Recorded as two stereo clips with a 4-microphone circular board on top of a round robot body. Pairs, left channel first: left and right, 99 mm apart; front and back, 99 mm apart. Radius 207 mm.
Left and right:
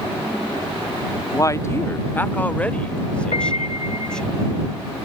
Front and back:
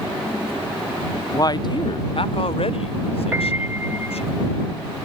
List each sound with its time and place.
1.3 s a man speaking: 45° left; by 4.3 s 10° left
3.3 s a piano: 110° left